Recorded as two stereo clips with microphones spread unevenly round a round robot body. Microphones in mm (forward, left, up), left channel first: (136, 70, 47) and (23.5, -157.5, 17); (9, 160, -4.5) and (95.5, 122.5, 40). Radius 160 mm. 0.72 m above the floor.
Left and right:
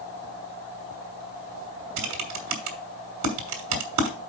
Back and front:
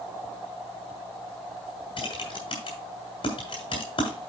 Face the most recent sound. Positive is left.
turn(degrees=-145)